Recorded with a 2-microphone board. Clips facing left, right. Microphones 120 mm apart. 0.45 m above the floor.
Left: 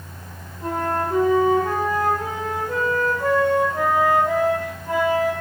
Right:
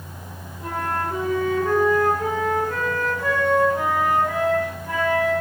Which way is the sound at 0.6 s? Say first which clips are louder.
Left 3 dB; 35° left (ahead or behind).